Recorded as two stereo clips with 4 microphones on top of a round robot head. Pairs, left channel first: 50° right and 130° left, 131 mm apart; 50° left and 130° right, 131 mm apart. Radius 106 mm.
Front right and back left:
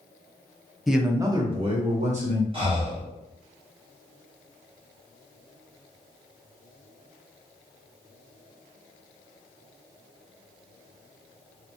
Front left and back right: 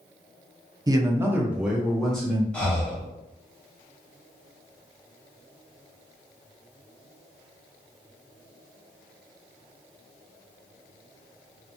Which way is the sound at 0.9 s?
140° right.